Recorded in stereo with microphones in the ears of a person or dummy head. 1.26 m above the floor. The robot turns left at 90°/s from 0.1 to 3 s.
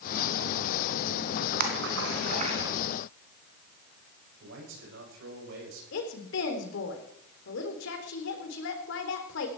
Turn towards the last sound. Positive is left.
turn(degrees=80)